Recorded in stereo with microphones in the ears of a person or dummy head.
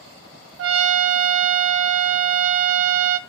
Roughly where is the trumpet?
Right.